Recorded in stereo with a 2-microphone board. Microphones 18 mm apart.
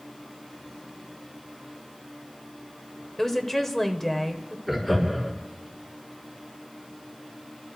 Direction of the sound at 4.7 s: 10° left (ahead or behind).